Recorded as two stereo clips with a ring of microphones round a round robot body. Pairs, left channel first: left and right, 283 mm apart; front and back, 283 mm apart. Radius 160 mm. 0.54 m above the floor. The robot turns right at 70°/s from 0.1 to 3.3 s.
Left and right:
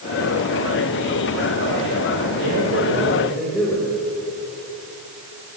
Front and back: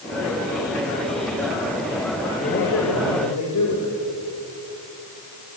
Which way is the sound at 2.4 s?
65° right.